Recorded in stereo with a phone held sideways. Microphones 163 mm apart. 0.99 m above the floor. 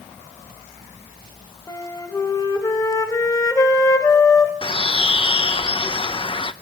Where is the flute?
20° left (ahead or behind), 1.8 m.